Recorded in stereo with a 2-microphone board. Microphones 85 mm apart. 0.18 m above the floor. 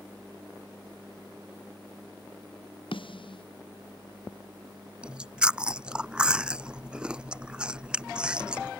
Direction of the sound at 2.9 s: 80° left.